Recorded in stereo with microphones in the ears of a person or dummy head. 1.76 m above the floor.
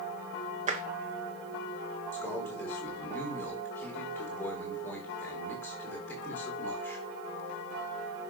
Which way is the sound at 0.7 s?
40° right (ahead or behind).